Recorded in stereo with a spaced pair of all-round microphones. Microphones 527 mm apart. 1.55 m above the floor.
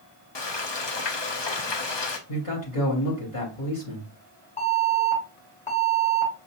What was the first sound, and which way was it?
Frying, 55° left (ahead or behind).